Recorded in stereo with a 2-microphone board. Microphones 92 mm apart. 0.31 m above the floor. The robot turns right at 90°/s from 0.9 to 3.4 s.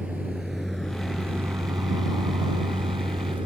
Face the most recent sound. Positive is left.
turn(degrees=-65)  # may be behind; listen again after turning